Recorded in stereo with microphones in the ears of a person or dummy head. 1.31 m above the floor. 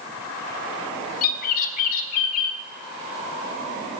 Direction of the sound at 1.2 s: 40° left (ahead or behind).